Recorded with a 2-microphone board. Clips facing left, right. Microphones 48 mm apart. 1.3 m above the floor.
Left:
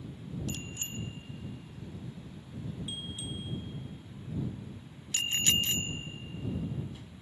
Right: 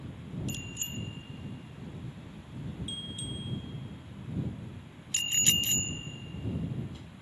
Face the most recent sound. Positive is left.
turn(degrees=10)  # may be behind; listen again after turning